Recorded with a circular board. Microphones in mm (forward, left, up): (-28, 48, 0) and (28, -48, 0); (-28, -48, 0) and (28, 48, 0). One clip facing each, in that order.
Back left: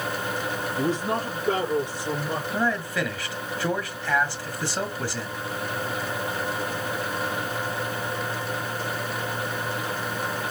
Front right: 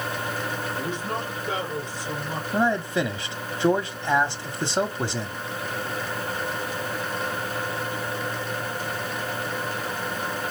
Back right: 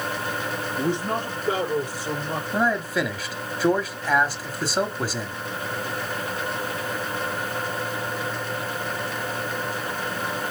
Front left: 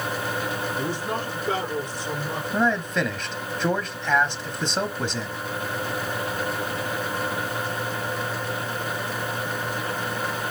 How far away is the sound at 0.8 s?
About 4 m.